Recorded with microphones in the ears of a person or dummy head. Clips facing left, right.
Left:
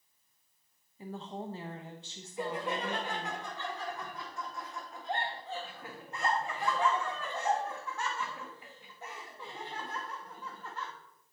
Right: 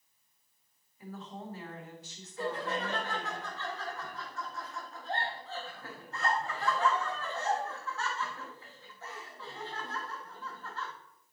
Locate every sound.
1.0 s a woman speaking: 30° left (ahead or behind), 1.0 m
2.4 s laughter: 25° left (ahead or behind), 1.9 m